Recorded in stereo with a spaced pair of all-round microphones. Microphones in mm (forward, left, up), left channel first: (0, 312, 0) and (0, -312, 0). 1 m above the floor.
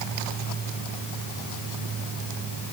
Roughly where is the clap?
No clap in this recording.